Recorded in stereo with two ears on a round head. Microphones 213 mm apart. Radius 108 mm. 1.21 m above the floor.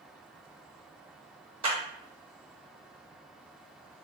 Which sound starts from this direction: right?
A clap, at 1.6 s.